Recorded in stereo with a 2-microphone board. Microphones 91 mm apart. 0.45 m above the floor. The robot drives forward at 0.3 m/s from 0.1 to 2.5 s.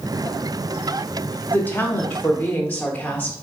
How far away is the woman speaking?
About 0.8 m.